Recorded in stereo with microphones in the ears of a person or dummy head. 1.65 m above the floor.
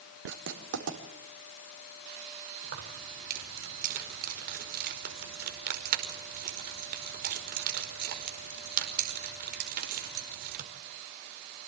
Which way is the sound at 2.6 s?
55° right (ahead or behind).